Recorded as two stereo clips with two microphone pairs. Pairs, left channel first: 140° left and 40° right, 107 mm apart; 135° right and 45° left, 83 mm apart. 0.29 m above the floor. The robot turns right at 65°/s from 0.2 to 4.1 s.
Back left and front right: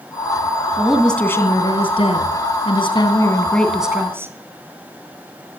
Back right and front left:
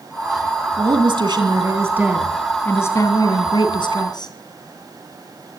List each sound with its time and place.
0.8 s a woman speaking: 35° left, 3 m; by 4.3 s 110° right, 3 m